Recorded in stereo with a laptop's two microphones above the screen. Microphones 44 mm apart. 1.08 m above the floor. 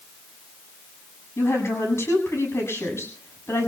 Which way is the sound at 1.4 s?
90° left.